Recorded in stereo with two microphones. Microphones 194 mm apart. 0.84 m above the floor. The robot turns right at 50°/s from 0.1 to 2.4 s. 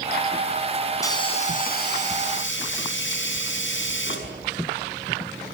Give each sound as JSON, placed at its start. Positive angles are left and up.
{"t": 1.0, "sound": "a hiss", "azimuth_deg": 15, "distance_m": 5.5}